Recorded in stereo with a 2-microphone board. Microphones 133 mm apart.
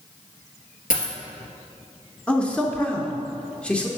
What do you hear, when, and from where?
0.9 s a dropped coin: 85° left, 1.6 m
2.3 s a man speaking: 10° left (ahead or behind), 0.7 m